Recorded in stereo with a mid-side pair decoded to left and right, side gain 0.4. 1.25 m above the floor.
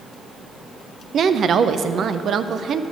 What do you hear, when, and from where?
1.1 s a woman speaking: 60° right, 0.6 m